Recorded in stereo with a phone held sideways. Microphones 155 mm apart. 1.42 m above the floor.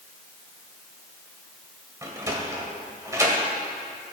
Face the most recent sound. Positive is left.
turn(degrees=-20)  # may be behind; listen again after turning